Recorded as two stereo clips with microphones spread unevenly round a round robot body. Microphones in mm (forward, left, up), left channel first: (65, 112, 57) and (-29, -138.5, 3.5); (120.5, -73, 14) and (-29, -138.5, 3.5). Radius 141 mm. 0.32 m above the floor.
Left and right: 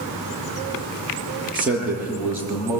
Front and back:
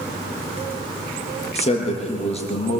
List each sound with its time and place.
1.6 s a man speaking: 25° right, 7.5 m; by 2.8 s 30° right, 8.5 m